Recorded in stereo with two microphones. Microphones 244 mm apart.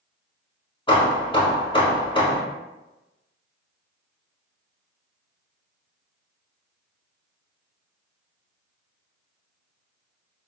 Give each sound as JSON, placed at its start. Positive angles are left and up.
{"t": 0.9, "sound": "hammering", "side_deg": 25, "distance_m": 0.7}